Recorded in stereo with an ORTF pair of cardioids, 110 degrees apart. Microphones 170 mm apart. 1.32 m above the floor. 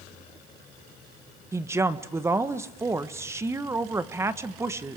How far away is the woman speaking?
About 1.4 m.